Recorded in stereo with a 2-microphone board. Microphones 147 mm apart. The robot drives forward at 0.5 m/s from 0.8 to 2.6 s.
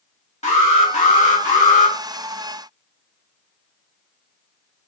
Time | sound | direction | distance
0.4 | an alarm | 45° left (ahead or behind) | 2.5 m